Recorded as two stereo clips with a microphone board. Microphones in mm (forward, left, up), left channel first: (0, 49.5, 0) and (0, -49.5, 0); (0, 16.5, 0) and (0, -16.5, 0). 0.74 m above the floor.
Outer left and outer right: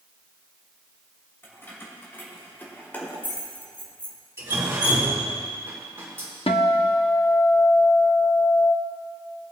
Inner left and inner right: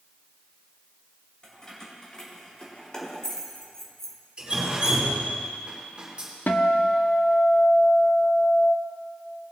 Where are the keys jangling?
25° left (ahead or behind), 2.5 m; by 4.2 s 10° left (ahead or behind), 1.2 m.